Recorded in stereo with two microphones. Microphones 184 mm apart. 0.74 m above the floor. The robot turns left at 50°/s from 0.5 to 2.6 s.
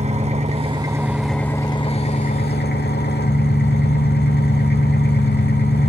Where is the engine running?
140° right, 1.0 m; by 5.9 s 115° left, 1.0 m.